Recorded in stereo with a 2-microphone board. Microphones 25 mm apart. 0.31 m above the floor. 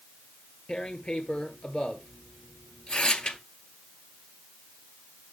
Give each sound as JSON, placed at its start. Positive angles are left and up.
{"t": 0.7, "sound": "tearing paper", "side_deg": 45, "distance_m": 1.1}